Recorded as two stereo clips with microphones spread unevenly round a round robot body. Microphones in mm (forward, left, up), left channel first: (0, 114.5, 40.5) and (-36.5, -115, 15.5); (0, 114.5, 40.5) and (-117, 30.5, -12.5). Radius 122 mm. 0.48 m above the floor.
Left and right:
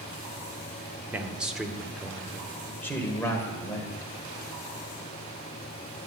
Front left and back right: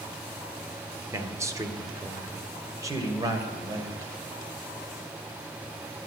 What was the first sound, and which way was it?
A man speaking, 170° right.